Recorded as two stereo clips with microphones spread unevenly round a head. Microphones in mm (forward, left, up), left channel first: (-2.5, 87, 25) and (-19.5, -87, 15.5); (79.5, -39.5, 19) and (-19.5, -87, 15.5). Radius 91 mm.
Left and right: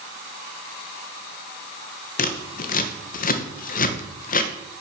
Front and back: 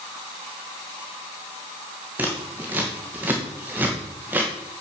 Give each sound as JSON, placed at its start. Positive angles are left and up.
{"t": 2.2, "sound": "scissors", "azimuth_deg": 125, "distance_m": 1.2}